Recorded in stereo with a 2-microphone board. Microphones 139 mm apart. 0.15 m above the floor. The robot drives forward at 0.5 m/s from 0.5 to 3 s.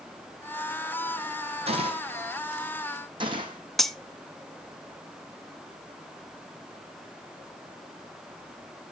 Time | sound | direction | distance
1.7 | a gunshot | 45° right (ahead or behind) | 2 m
3.8 | cutlery clinking | 5° left (ahead or behind) | 0.6 m